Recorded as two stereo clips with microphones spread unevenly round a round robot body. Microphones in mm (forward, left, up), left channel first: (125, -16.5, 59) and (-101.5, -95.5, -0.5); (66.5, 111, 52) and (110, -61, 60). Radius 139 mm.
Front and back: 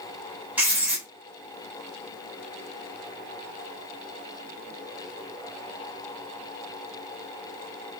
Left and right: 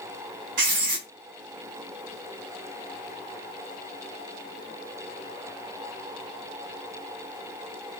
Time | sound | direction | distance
0.6 | writing | 75° right | 1.8 m